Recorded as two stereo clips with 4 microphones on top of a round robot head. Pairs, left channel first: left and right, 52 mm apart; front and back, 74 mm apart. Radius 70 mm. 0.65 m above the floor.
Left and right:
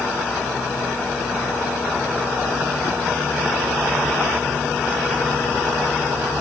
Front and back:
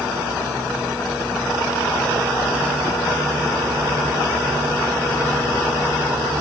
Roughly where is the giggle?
I don't hear a giggle.